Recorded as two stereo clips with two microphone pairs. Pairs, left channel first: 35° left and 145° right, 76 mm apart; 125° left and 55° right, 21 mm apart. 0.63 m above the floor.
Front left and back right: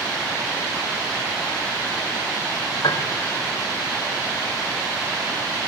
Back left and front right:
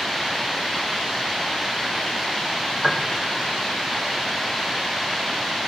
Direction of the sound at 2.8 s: 50° left.